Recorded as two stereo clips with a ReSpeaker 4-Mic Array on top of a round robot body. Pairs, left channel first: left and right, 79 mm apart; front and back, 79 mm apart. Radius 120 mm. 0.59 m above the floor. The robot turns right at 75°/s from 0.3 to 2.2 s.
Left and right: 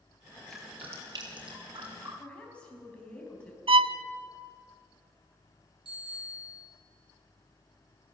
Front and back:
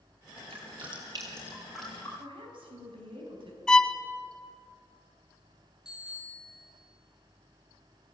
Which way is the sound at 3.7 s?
80° right.